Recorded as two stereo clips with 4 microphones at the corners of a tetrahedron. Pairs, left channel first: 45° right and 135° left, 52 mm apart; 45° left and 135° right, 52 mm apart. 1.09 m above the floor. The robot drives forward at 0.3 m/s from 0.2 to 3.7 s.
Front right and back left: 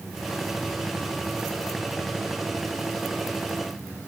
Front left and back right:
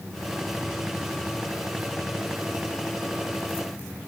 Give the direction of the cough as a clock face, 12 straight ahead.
No cough in this recording.